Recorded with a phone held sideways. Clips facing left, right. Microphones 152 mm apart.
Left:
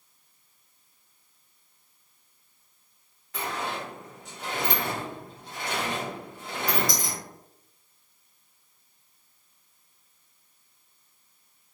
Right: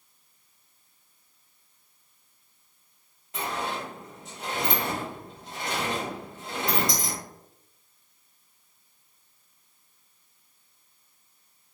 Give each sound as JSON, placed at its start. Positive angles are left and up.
{"t": 3.3, "sound": "a sliding door", "side_deg": -25, "distance_m": 1.6}